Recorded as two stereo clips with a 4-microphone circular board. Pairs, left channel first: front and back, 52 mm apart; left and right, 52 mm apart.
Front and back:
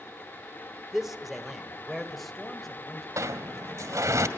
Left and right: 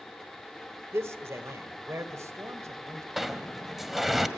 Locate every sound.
0.9 s a man speaking: 95° right, 2 m; by 3.1 s 85° right, 3.5 m
3.2 s a sliding door: 175° right, 1.7 m